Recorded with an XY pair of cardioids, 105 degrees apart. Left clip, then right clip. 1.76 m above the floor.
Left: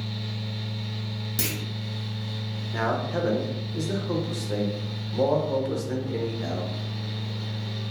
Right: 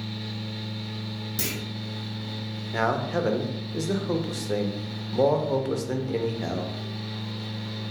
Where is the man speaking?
30° right, 0.6 m.